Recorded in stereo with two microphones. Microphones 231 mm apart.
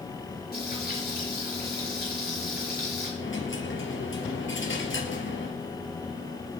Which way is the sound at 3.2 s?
65° left (ahead or behind).